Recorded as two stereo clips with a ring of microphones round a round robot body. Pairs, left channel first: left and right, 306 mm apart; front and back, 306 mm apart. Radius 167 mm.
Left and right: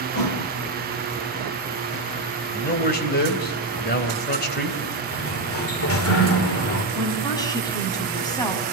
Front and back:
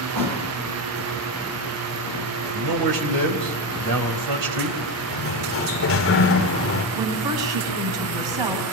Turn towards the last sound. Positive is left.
turn(degrees=165)